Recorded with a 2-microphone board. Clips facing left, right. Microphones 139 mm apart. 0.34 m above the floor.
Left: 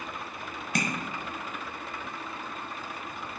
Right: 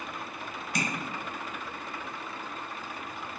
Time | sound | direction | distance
0.8 | tapping | 60° left (ahead or behind) | 0.7 m